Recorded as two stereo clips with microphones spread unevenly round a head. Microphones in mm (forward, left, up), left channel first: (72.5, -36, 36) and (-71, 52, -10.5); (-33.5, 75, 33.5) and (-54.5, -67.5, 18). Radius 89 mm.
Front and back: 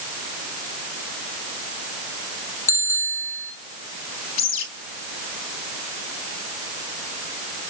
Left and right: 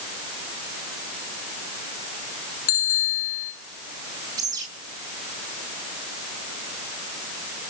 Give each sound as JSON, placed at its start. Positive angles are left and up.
{"t": 2.7, "sound": "a bicycle bell", "azimuth_deg": 40, "distance_m": 8.5}
{"t": 4.4, "sound": "a bird", "azimuth_deg": -25, "distance_m": 3.5}